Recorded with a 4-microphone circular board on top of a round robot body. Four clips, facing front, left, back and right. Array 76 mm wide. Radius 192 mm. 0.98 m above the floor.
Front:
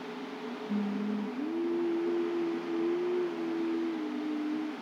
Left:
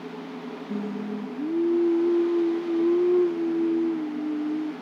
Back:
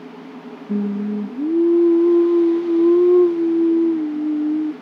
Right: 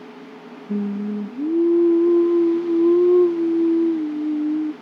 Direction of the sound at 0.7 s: 150° right.